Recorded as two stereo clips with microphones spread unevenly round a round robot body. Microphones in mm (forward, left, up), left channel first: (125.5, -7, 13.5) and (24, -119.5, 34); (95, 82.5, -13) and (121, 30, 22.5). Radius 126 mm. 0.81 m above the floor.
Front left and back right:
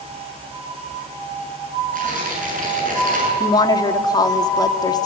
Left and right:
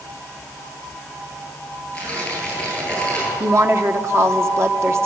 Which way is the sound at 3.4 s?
10° right.